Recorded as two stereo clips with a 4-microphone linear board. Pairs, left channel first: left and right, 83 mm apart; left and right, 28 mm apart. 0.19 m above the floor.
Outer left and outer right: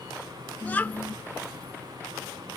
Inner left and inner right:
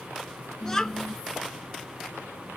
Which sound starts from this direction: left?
A child speaking, at 0.6 s.